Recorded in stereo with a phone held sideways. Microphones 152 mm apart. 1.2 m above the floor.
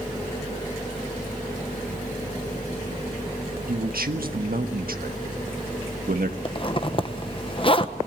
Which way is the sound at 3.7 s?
75° right (ahead or behind).